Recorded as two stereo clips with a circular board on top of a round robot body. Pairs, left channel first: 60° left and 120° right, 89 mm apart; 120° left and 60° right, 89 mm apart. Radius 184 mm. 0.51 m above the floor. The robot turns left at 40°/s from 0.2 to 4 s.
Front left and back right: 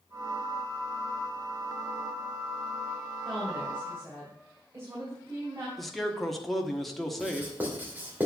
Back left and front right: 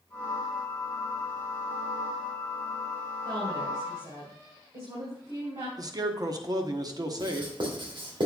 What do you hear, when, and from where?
3.2 s a woman speaking: 30° right, 3 m; by 5.7 s 60° right, 3 m
5.8 s a man speaking: 30° right, 1.4 m
7.2 s writing: 50° right, 3 m